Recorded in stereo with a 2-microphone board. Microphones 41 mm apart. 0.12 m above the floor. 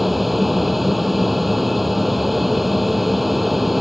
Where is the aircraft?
Centre (ahead or behind).